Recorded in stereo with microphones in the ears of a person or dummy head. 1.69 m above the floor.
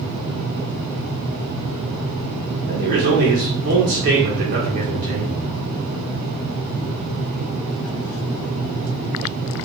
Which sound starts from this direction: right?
A man speaking, at 2.7 s.